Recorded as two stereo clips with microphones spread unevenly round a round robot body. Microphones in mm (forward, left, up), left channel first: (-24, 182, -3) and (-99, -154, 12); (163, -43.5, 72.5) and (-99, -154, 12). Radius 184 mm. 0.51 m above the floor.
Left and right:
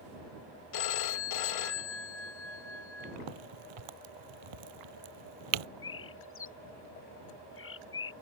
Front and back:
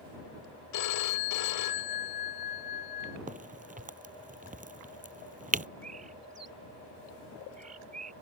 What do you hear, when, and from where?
0.7 s a phone ringing: 60° left
3.3 s a crack: 95° right
5.8 s a bird: 130° left